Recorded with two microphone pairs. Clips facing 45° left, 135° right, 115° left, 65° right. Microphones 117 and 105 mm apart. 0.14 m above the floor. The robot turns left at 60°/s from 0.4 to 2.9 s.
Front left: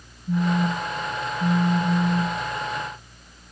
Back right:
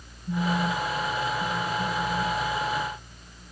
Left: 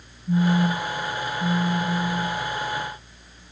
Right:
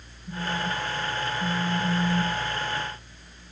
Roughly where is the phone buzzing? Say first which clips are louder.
Front left 3 dB, left 9 dB; behind.